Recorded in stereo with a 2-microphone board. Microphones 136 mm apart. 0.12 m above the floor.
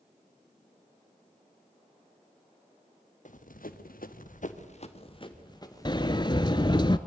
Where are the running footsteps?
65° left (ahead or behind), 1.7 m; by 6.8 s 15° left (ahead or behind), 3.5 m.